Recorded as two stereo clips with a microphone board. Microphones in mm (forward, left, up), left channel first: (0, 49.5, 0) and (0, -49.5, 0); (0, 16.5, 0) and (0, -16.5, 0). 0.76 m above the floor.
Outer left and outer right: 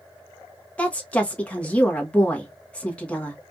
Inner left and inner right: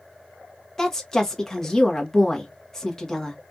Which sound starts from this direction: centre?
A woman speaking, at 0.8 s.